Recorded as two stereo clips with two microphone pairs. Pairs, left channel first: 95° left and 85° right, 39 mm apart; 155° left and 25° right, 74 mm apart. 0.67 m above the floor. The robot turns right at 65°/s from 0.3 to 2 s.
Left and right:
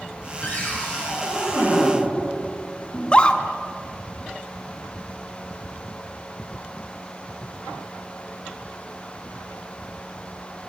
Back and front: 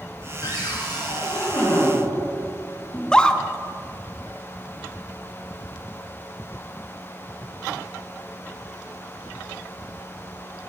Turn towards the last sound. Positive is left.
turn(degrees=85)